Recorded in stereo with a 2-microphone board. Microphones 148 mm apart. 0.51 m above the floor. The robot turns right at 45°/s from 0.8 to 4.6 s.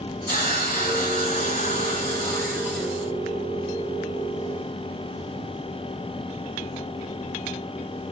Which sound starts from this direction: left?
A hiss, at 0.3 s.